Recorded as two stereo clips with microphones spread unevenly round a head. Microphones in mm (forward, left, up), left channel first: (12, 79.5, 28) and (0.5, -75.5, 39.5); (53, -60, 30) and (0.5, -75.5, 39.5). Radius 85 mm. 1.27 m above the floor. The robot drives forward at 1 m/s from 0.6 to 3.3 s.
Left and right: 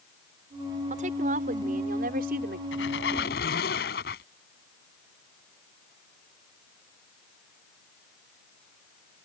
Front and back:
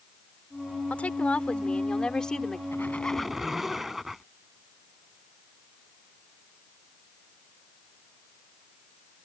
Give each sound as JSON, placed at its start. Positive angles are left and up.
{"t": 0.9, "sound": "a woman speaking", "azimuth_deg": -50}
{"t": 2.7, "sound": "a squeak", "azimuth_deg": 100}